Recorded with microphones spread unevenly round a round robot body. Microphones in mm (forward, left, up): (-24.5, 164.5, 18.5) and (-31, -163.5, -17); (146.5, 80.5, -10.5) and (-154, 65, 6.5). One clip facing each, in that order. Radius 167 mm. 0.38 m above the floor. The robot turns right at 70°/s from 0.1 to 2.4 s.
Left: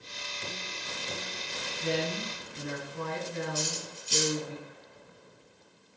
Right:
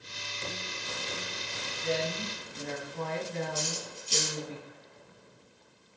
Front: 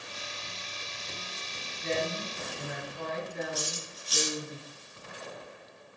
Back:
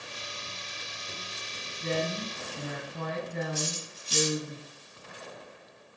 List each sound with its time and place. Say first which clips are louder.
1.8 s a woman speaking: left 1 dB, back 1 dB; 125° left, 6.5 m; by 4.5 s 165° left, 6.5 m
3.5 s cutlery clinking: left 1 dB, back 2 dB; 125° left, 5 m